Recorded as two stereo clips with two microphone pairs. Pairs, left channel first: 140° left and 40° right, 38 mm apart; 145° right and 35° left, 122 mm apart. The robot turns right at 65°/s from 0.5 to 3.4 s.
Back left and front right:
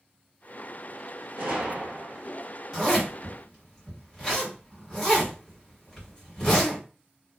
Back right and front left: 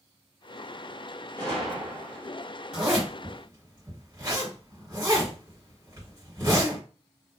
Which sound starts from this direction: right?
A gunshot, at 1.4 s.